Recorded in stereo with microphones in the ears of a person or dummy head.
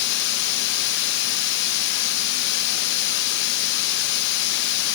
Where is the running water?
65° left (ahead or behind), 1.3 m.